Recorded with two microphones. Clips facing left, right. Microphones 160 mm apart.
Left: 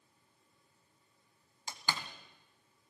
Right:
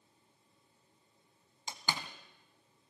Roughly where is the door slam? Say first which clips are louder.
Right 1 dB; centre.